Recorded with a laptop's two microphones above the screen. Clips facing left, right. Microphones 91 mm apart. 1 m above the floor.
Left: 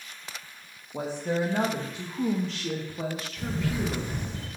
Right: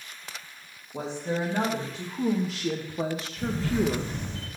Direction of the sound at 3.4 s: 10° left (ahead or behind).